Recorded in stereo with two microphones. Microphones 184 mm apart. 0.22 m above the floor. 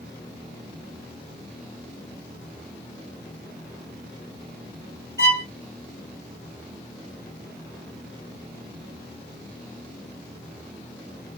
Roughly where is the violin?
Left.